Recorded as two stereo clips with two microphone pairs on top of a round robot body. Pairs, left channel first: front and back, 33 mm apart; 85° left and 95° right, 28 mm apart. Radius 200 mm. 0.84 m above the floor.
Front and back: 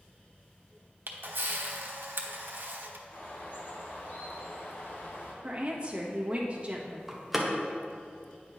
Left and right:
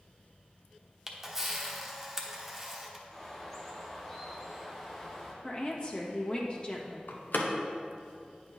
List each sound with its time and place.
1.1 s a camera shutter: straight behind, 1.1 m
3.1 s a bird: 10° left, 1.7 m
5.4 s a woman speaking: 130° left, 1.4 m
7.1 s a door slam: 95° left, 0.8 m